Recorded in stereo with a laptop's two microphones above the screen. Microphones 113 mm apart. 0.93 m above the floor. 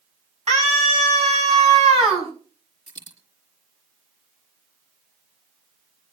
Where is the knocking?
I don't hear knocking.